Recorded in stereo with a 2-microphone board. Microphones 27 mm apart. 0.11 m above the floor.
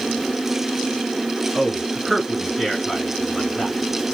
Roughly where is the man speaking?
Centre.